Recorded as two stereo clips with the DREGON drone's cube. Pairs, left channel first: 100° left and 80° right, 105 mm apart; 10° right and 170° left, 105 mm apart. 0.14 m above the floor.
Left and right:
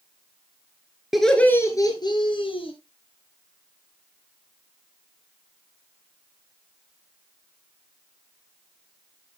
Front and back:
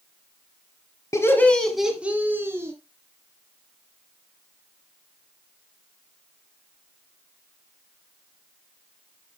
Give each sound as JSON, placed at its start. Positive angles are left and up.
{"t": 1.1, "sound": "laughter", "azimuth_deg": 5, "distance_m": 1.4}